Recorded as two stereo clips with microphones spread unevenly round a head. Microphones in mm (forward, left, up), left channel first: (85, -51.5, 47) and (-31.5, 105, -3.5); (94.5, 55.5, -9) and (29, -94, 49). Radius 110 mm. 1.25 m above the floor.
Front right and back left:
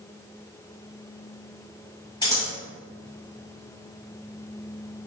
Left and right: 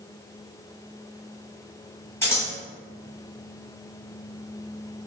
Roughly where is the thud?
No thud in this recording.